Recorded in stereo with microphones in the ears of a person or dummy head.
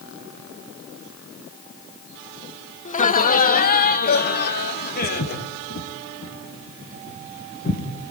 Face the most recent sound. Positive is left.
turn(degrees=40)  # may be behind; listen again after turning